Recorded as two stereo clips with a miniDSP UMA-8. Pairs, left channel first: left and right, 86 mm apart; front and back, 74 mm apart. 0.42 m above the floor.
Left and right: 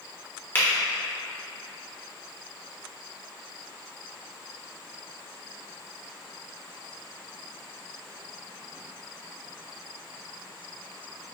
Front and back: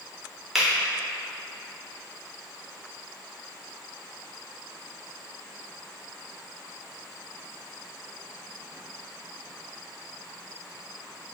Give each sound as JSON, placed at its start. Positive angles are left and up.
{"t": 0.6, "sound": "a finger snap", "azimuth_deg": 100, "distance_m": 1.1}